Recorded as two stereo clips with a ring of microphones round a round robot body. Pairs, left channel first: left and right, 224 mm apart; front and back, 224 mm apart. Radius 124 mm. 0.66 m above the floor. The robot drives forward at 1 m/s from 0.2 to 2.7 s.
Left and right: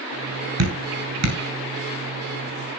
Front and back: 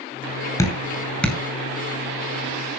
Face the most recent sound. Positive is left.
turn(degrees=-105)